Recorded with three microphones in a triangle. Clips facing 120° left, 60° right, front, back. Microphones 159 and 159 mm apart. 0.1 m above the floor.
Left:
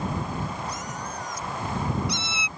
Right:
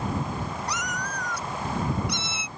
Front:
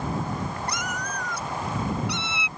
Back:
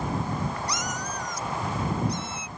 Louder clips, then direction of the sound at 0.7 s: Right 1 dB, even; 40° right.